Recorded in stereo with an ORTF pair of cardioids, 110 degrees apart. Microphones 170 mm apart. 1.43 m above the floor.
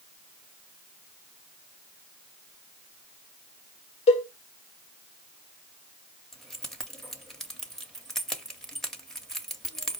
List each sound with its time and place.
4.1 s a cowbell: 40° left, 0.8 m
6.3 s keys jangling: 5° left, 0.8 m